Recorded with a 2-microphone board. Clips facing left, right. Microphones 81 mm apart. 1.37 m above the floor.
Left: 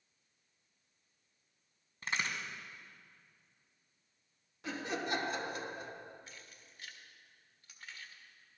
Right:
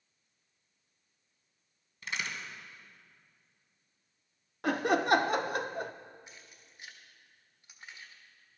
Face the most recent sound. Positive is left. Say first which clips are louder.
# even
turn(degrees=-15)  # may be behind; listen again after turning